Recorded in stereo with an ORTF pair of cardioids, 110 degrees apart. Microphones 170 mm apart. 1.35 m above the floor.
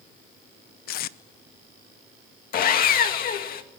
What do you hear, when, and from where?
0.9 s tape being pulled: 70° left, 0.9 m
2.5 s sawing: 60° left, 2.5 m